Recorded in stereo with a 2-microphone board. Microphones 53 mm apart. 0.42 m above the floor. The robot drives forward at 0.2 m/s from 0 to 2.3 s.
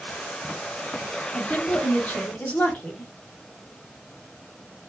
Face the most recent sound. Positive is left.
turn(degrees=25)  # may be behind; listen again after turning